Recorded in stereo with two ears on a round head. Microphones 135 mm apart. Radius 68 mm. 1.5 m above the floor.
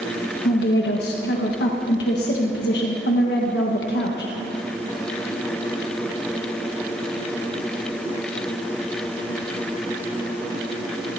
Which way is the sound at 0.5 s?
80° left.